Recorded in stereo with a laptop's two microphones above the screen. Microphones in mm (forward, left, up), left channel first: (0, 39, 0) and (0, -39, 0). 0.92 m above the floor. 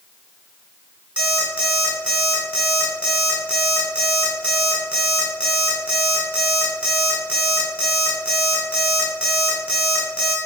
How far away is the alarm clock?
About 1.8 m.